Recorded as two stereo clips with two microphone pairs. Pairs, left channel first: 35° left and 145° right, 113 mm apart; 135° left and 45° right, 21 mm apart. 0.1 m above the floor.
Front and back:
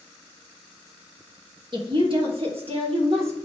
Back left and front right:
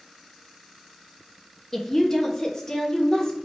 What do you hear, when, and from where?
1.7 s a woman speaking: 150° right, 2.0 m; by 3.4 s 165° right, 3 m